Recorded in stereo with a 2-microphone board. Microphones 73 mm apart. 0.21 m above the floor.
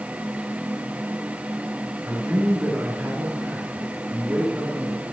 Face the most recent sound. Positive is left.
turn(degrees=-20)  # may be behind; listen again after turning